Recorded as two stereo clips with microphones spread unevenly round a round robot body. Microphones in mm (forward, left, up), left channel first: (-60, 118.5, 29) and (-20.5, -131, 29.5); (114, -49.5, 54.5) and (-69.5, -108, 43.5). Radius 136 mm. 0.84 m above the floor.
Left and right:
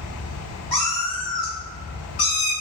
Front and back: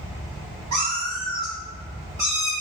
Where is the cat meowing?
170° left, 1.1 m; by 2.5 s 100° left, 0.6 m.